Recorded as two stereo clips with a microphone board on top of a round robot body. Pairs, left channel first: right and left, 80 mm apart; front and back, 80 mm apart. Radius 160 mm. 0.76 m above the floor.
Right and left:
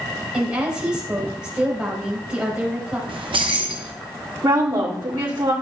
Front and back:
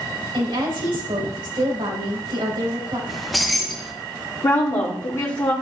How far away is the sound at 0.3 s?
About 4 m.